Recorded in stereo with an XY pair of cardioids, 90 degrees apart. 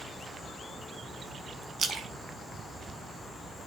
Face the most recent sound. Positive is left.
turn(degrees=-65)